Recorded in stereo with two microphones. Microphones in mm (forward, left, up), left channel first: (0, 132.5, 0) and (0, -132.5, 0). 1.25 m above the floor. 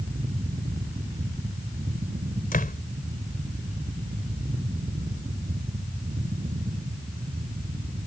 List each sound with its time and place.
2.5 s a door slam: 30° left (ahead or behind)